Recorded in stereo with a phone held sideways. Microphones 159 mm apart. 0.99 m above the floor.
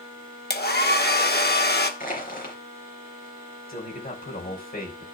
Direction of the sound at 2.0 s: 65° left (ahead or behind).